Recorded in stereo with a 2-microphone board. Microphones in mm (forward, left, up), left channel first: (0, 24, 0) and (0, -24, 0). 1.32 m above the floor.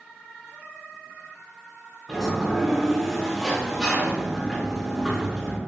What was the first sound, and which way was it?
A sliding door, 5° right (ahead or behind).